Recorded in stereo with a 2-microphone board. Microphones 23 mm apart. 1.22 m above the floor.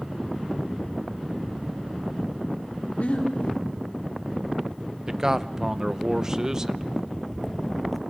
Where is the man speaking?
20° right (ahead or behind), 0.7 m.